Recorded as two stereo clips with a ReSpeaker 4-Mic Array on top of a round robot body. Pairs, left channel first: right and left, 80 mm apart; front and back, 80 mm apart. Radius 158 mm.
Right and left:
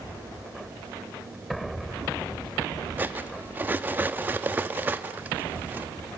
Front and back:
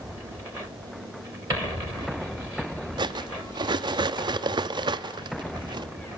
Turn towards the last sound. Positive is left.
turn(degrees=155)